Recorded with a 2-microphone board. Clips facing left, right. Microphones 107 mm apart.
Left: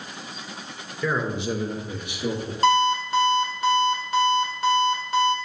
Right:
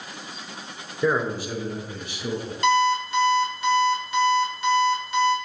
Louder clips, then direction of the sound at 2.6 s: Left 1 dB; 45° left (ahead or behind).